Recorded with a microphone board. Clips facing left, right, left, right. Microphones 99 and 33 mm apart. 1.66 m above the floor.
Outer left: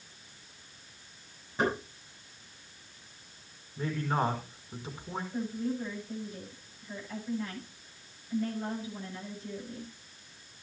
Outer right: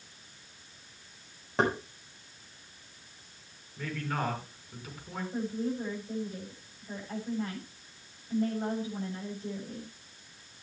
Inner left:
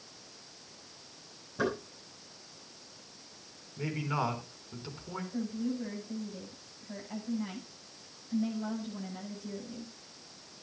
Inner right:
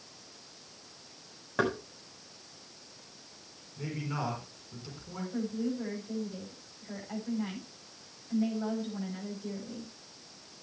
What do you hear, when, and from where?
1.6 s knocking: 70° right (ahead or behind), 7 m
3.8 s a man speaking: 25° left (ahead or behind), 4.5 m
5.3 s a woman speaking: 40° right (ahead or behind), 10 m